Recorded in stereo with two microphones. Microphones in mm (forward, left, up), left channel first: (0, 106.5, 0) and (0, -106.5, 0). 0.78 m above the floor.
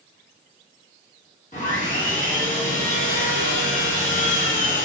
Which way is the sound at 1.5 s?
35° left (ahead or behind).